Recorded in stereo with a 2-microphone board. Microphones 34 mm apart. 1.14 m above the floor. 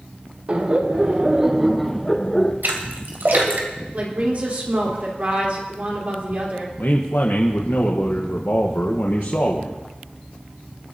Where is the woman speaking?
50° right (ahead or behind), 3.5 m.